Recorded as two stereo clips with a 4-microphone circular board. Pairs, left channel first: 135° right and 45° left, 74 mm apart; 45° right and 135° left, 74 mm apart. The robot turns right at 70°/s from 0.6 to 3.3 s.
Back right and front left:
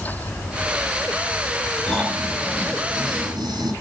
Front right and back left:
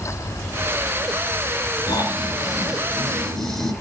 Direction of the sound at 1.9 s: 65° right.